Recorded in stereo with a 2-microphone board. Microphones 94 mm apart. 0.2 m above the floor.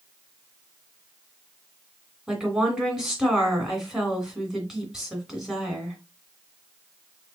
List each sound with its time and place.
2.3 s a woman speaking: 5° right (ahead or behind), 1.9 m